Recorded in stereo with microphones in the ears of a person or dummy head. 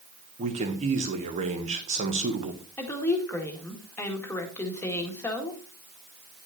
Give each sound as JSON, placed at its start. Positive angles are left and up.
{"t": 0.4, "sound": "a man speaking", "side_deg": -35, "distance_m": 1.3}
{"t": 2.8, "sound": "a woman speaking", "side_deg": 15, "distance_m": 1.8}